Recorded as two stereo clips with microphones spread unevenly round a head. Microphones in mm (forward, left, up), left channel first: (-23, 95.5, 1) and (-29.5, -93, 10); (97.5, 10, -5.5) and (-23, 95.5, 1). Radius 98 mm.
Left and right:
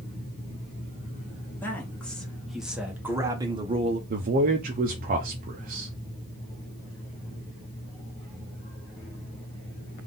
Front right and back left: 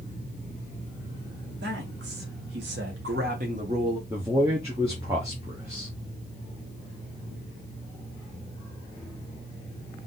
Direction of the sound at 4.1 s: 140° right.